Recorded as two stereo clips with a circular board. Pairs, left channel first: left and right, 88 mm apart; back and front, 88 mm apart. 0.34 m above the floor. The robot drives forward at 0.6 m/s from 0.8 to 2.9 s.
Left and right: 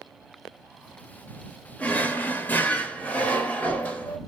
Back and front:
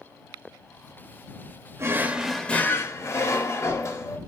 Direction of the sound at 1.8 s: 30° left.